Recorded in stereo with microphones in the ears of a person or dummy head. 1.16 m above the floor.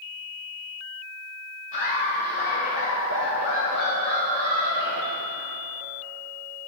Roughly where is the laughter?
Left.